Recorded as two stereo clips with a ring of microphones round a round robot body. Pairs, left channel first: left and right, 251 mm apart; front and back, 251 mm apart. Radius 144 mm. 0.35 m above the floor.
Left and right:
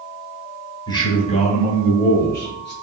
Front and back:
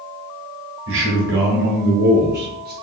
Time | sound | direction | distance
0.9 | a man speaking | 160° left | 1.4 m